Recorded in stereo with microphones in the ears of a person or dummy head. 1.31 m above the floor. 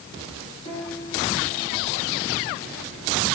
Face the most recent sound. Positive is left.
turn(degrees=25)  # may be behind; listen again after turning